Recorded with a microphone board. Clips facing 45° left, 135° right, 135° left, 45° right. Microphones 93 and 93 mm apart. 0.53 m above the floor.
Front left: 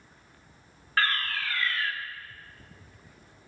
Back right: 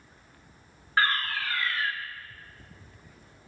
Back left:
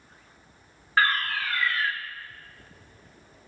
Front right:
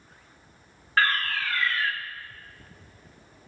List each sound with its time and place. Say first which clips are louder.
1.0 s a fire alarm: back right 2 dB, even; 165° right, 1.6 m